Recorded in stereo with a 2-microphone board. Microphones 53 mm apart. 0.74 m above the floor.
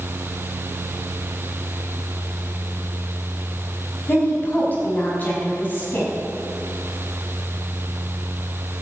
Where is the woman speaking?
35° left (ahead or behind), 5 m.